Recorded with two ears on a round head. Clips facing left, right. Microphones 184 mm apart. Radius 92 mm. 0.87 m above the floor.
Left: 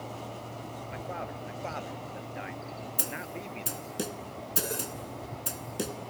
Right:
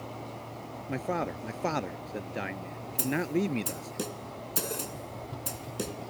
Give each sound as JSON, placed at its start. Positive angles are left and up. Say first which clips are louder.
{"t": 0.9, "sound": "a man speaking", "louder": "right 9 dB", "side_deg": -65}
{"t": 3.0, "sound": "a snare drum", "louder": "right 15 dB", "side_deg": 5}